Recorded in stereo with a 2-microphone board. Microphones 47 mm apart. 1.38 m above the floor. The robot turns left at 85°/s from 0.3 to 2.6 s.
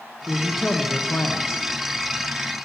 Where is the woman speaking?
155° right, 1.0 m; by 1.6 s 90° left, 1.0 m.